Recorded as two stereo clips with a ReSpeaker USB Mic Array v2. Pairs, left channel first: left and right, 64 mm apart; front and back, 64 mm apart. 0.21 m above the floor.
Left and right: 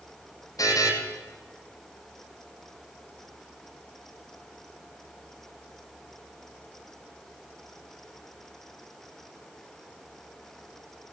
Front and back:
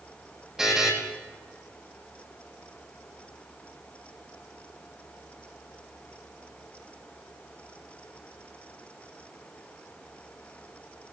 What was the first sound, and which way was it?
A buzzer, 100° left.